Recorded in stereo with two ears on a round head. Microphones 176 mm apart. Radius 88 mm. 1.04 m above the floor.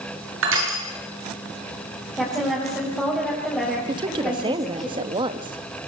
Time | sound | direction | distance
0.4 | crushing | 75° right (ahead or behind) | 6.5 m
2.1 | a woman speaking | 5° left (ahead or behind) | 6 m
3.9 | a woman speaking | 25° right (ahead or behind) | 1.4 m